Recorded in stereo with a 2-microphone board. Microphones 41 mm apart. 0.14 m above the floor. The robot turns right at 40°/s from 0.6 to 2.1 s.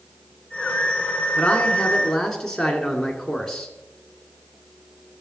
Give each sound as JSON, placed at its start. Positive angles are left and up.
{"t": 1.4, "sound": "a man speaking", "side_deg": 30, "distance_m": 1.4}